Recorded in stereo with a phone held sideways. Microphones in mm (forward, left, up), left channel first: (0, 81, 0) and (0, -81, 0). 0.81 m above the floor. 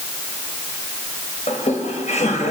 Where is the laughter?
50° left (ahead or behind), 3.5 m.